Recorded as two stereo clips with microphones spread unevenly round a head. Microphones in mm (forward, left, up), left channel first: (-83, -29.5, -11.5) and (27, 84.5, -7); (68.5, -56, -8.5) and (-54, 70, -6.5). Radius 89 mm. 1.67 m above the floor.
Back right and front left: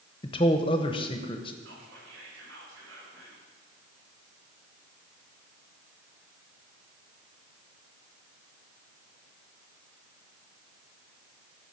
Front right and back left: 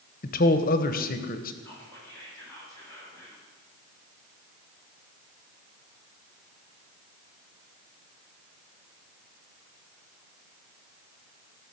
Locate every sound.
0.2 s a man speaking: 75° right, 0.9 m
1.6 s whispering: 30° left, 6.5 m